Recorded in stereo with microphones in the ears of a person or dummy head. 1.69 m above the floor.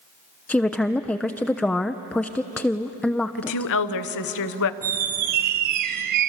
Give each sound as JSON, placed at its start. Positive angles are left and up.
{"t": 0.5, "sound": "a woman speaking", "side_deg": 5, "distance_m": 0.6}
{"t": 3.4, "sound": "a woman speaking", "side_deg": 75, "distance_m": 1.0}
{"t": 4.8, "sound": "a squeak", "side_deg": -50, "distance_m": 0.8}